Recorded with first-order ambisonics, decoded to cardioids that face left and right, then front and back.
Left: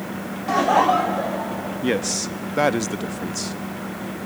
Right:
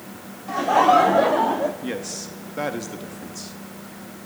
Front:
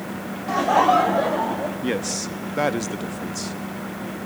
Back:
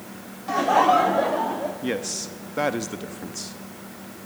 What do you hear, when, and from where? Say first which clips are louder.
0.5 s laughter: right 1 dB, front 1 dB; 90° left, 0.5 m; by 1.7 s 90° right, 0.9 m
1.8 s a man speaking: left 7 dB, front 3 dB; 80° left, 0.6 m